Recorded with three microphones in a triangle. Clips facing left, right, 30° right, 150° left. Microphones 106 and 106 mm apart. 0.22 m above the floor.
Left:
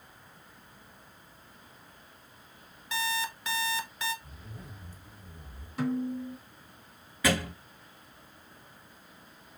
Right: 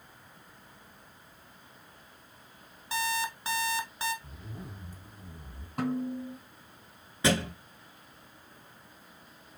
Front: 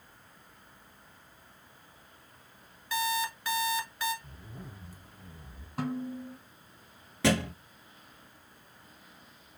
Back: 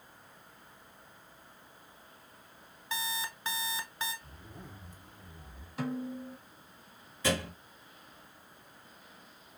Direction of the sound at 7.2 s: 25° right.